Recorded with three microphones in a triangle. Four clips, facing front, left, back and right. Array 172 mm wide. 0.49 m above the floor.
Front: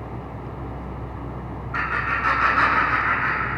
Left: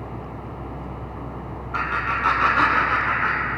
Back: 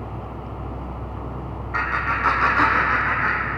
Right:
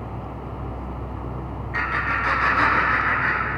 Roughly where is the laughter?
Behind.